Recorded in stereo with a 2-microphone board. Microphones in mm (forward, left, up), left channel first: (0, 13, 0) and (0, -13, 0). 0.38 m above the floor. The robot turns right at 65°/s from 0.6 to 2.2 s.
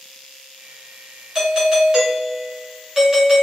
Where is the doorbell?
25° right (ahead or behind), 1.7 m.